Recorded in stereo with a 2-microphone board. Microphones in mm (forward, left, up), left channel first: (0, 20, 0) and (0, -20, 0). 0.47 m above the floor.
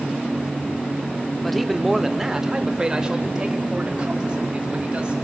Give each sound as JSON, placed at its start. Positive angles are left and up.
{"t": 1.4, "sound": "a man speaking", "side_deg": 5, "distance_m": 0.7}